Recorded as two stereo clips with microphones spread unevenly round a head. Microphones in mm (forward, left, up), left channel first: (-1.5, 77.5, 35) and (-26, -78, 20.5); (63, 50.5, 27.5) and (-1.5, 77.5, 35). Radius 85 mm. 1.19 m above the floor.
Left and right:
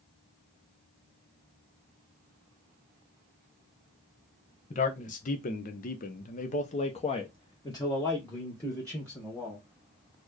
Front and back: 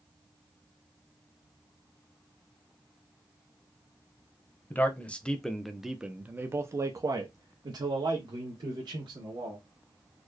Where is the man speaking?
35° left, 1.1 m; by 9.6 s 165° left, 1.8 m.